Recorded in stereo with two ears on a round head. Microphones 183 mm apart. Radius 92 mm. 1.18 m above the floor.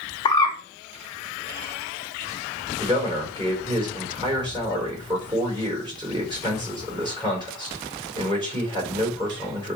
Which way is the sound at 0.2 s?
20° left (ahead or behind).